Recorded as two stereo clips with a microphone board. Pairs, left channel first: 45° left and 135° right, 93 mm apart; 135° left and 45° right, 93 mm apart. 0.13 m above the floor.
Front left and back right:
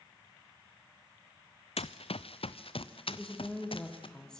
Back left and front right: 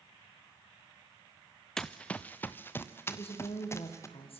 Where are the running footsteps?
50° left, 0.8 m; by 4.1 s 75° left, 2 m.